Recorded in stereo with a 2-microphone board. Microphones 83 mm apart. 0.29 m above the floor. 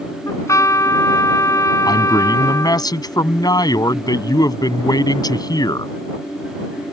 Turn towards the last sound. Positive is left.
turn(degrees=55)  # may be behind; listen again after turning